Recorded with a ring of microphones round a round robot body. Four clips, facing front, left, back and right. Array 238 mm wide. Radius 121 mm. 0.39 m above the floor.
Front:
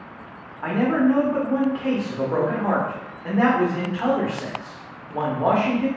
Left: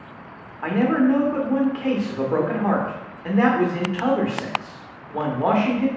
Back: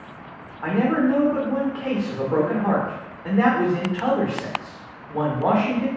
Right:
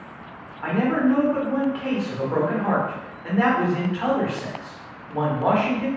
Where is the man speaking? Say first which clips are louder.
Left 2 dB, front 1 dB; 85° left, 0.8 m.